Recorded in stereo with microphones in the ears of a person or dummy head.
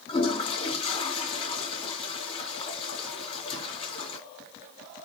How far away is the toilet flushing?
About 2 m.